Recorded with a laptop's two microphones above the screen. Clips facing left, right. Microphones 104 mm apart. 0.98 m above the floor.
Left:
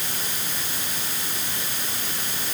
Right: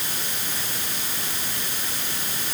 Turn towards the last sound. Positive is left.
No sound to turn to.